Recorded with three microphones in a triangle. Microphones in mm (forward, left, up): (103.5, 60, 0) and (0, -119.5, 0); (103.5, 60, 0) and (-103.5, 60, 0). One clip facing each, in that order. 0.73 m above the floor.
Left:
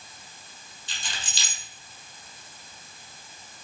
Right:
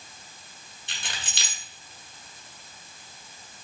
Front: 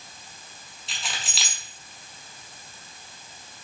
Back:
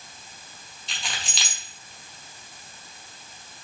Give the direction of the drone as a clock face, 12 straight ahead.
No drone in this recording.